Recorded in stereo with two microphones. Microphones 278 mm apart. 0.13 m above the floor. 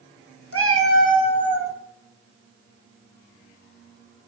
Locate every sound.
0.5 s a cat meowing: 55° left (ahead or behind), 0.9 m; by 1.7 s 10° left (ahead or behind), 1.7 m